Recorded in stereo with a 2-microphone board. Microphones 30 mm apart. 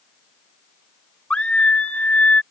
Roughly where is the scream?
Left.